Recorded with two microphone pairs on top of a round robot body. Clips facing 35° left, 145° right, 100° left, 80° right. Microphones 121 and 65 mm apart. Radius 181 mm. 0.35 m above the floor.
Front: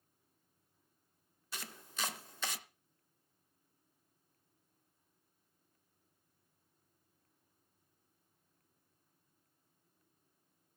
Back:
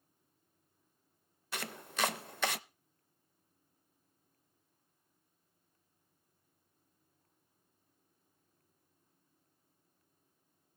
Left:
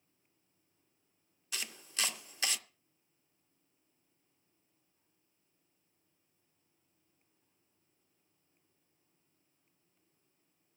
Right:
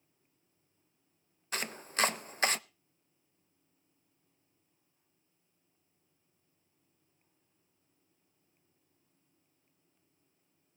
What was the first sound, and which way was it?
Chopping, 125° right.